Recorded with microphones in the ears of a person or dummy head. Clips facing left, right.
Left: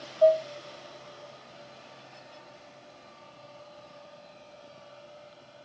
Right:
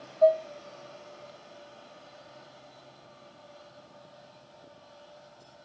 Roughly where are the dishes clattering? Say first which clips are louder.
Left 1 dB; left.